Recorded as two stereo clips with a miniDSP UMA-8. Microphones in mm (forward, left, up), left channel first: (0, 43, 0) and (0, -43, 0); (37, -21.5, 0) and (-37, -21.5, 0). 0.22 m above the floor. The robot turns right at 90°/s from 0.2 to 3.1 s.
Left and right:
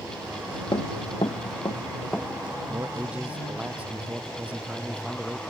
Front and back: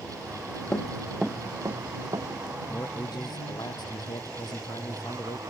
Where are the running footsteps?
60° left; by 2.6 s 160° right.